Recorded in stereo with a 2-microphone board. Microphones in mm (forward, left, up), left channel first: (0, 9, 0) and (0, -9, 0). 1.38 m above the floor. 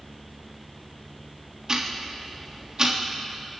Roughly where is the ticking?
Right.